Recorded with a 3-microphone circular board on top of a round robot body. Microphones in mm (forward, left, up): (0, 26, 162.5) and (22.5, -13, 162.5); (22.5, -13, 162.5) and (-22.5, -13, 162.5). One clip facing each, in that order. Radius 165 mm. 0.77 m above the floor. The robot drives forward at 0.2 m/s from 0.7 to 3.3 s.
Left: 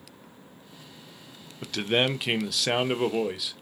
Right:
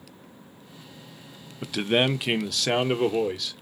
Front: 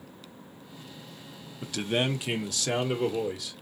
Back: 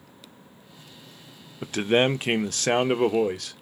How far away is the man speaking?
About 0.6 m.